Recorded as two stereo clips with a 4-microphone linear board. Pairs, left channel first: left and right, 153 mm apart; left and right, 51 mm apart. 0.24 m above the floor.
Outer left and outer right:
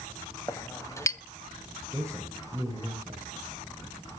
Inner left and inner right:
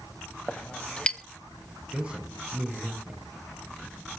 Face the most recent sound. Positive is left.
turn(degrees=-20)  # may be behind; listen again after turning